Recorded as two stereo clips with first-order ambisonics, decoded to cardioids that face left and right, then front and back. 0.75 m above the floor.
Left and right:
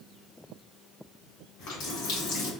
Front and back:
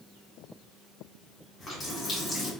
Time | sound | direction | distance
1.6 | a running tap | 65° left | 1.9 m